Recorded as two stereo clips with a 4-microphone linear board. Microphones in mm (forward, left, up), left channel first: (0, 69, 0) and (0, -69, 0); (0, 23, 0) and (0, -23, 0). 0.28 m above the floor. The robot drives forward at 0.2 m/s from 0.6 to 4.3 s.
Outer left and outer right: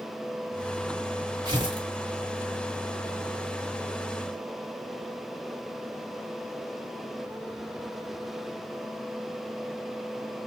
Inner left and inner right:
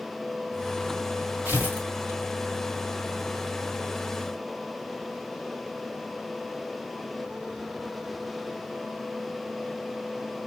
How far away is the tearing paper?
About 1.5 m.